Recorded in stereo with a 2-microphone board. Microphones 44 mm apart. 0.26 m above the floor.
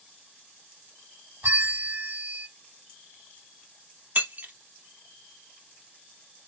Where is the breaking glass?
40° right (ahead or behind), 0.7 m.